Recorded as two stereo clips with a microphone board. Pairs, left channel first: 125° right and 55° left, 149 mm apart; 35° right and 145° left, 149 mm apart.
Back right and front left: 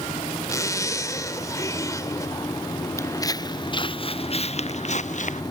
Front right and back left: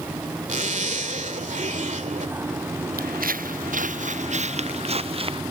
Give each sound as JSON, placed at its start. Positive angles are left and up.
{"t": 0.5, "sound": "a zipper", "azimuth_deg": 170}
{"t": 3.0, "sound": "footsteps", "azimuth_deg": 165}